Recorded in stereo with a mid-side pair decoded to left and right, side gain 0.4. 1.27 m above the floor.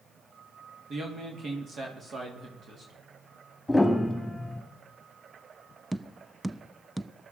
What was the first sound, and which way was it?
A man speaking, 50° right.